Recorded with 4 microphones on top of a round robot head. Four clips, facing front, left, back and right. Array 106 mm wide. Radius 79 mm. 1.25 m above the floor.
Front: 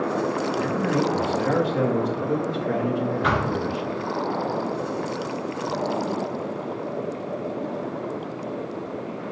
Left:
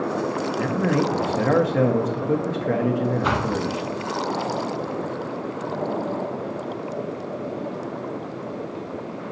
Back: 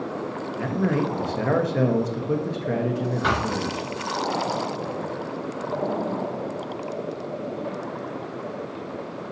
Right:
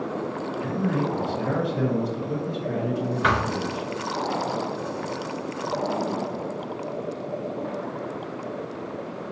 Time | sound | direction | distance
0.6 | a man speaking | 120° left | 1.3 m
3.2 | a thud | 105° right | 3.5 m